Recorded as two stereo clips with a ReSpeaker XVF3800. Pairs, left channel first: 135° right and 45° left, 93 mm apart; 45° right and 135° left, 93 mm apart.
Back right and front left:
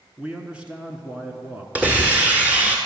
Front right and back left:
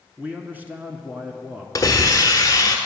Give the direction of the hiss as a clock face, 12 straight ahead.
1 o'clock.